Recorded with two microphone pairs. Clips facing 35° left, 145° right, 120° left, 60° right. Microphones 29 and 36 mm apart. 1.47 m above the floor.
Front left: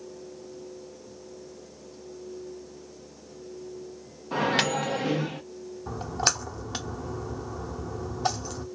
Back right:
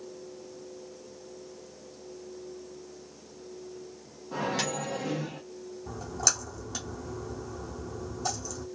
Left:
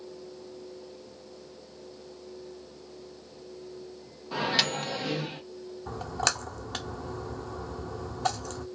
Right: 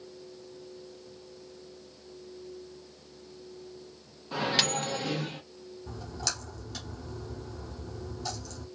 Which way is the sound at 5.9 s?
85° left.